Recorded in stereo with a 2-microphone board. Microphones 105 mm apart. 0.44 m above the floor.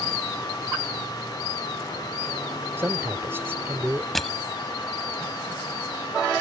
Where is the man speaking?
25° right (ahead or behind).